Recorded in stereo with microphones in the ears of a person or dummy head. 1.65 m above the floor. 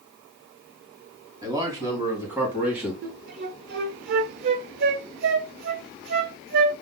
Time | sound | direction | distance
1.4 | a man speaking | 25° right (ahead or behind) | 3 m
3.0 | a flute | 55° right (ahead or behind) | 0.8 m